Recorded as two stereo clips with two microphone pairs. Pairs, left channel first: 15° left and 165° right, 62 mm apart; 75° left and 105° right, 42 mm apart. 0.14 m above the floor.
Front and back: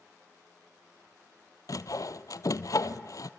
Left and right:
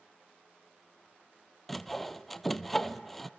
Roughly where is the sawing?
Ahead.